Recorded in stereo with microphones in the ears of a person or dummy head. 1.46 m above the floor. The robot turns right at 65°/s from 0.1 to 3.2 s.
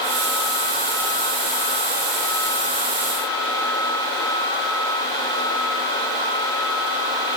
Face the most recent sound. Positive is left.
No sound to turn to.